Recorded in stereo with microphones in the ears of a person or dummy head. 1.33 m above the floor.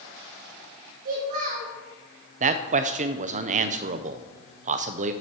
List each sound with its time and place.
1.1 s a child speaking: 45° right (ahead or behind), 3 m
2.4 s a man speaking: 40° right (ahead or behind), 0.6 m